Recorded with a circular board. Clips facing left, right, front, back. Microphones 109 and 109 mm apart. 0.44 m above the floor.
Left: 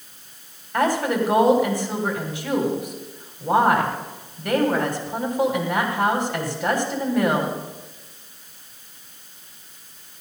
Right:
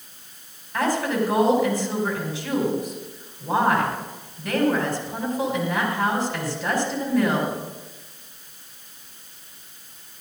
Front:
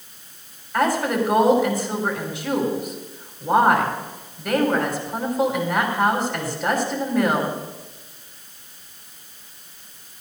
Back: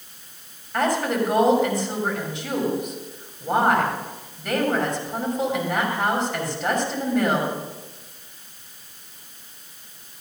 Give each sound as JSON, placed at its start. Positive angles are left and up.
{"t": 0.7, "sound": "a woman speaking", "azimuth_deg": 85, "distance_m": 3.0}